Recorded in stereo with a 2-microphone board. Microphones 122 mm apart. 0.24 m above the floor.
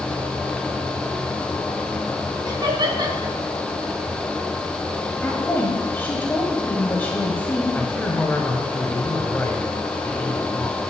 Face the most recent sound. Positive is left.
turn(degrees=15)  # may be behind; listen again after turning